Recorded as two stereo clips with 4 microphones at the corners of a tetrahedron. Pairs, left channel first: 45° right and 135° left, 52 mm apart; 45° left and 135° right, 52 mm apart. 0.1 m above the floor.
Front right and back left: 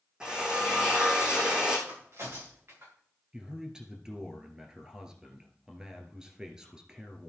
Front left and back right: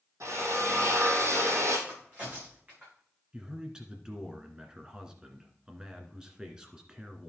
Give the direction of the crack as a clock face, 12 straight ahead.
6 o'clock.